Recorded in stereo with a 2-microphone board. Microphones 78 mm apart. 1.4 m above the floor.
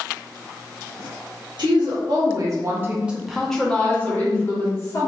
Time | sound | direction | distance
1.6 | a woman speaking | 80° right | 1.2 m